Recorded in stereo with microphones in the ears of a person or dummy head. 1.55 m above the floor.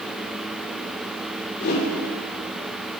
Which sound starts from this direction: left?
A whoosh, at 1.6 s.